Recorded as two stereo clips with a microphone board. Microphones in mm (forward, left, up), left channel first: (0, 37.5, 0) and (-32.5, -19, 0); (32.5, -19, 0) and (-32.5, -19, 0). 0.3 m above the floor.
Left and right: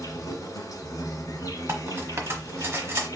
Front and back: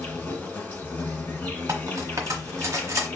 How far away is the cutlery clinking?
About 1.2 m.